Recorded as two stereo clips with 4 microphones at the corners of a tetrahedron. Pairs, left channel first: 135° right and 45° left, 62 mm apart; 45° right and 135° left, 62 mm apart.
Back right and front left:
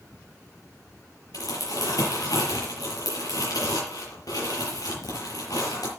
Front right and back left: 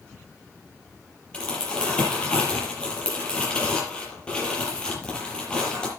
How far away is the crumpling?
About 6.5 m.